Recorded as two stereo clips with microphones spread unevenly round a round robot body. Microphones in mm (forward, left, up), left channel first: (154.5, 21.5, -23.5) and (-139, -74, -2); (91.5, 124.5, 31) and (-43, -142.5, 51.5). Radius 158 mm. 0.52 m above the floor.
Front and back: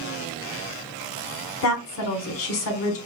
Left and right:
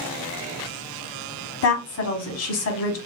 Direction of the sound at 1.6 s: 55° left.